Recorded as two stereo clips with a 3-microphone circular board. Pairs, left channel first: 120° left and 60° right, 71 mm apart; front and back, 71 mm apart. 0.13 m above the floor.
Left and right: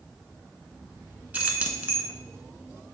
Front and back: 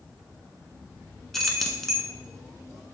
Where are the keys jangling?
80° right, 1.0 m.